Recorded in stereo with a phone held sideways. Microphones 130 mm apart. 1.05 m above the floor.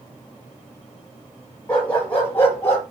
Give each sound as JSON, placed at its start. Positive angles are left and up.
{"t": 1.7, "sound": "a dog barking", "side_deg": 10, "distance_m": 6.0}